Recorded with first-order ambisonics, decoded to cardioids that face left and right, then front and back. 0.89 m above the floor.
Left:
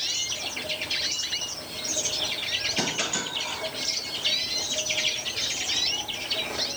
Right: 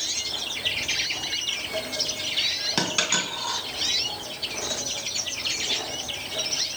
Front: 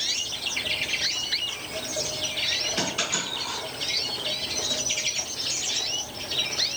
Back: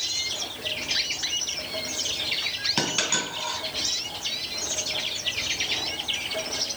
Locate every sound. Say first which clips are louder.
2.8 s a dropped coin: right 3 dB, back 2 dB; 120° right, 2 m